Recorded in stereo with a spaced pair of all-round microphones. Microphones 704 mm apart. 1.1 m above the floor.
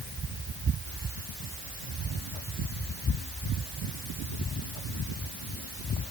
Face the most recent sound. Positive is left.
No sound to turn to.